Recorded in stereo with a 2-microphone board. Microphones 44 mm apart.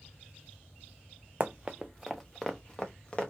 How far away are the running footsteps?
About 0.5 m.